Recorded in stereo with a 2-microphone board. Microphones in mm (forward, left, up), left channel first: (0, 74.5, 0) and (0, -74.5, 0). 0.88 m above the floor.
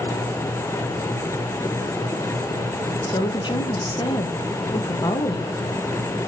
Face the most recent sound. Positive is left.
turn(degrees=30)  # may be behind; listen again after turning